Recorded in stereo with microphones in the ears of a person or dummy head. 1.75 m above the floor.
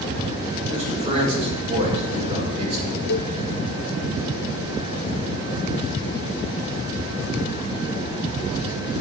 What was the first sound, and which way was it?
A man speaking, 30° right (ahead or behind).